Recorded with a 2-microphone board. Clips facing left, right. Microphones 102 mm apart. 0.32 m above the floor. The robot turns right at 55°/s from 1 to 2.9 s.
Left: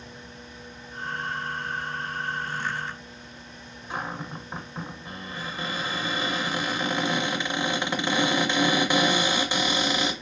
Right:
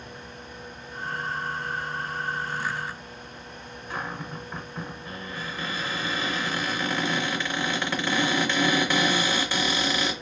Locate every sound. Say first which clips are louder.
3.9 s a cupboard door: left 1 dB; 20° left (ahead or behind), 0.6 m